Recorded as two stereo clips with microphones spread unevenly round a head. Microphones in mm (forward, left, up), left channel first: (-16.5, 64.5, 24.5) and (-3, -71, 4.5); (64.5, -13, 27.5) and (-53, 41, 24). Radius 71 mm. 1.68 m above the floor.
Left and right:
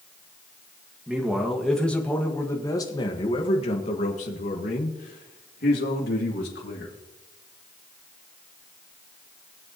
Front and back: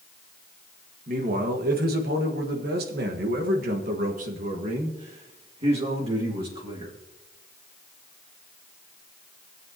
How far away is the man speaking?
About 1.8 m.